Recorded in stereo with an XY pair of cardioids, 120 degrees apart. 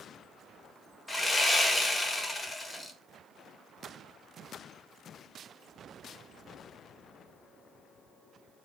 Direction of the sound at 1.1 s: 15° left.